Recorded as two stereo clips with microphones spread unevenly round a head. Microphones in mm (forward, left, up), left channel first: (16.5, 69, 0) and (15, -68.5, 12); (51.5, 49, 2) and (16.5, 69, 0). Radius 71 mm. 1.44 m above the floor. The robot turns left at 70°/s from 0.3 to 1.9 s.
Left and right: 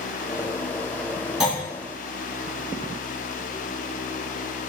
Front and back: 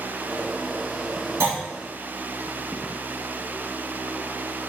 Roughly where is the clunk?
Behind.